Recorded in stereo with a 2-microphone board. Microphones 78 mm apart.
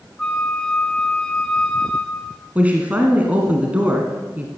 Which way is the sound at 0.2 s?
10° left (ahead or behind).